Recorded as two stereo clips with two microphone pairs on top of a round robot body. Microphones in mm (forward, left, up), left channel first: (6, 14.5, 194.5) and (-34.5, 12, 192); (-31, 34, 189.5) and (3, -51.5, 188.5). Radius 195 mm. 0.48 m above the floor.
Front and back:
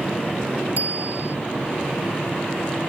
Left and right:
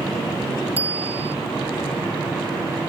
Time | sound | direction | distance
0.8 | a bicycle bell | 135° right | ?